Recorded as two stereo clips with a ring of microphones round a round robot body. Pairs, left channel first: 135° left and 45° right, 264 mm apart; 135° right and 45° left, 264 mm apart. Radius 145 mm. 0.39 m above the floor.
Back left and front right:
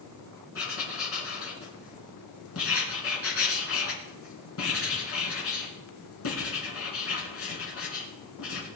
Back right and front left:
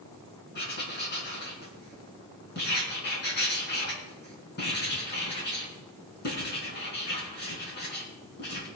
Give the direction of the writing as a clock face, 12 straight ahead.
6 o'clock.